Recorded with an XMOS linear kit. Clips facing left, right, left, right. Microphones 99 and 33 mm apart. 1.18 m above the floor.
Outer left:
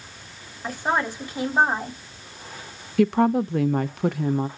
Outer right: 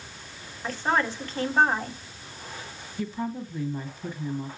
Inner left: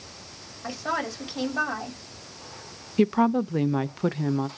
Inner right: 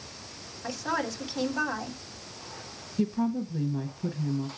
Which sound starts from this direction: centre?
A woman speaking, at 0.6 s.